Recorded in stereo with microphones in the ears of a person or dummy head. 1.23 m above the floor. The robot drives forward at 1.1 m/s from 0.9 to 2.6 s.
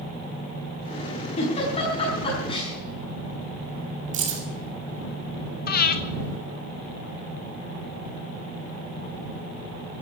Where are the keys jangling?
45° right (ahead or behind), 2 m.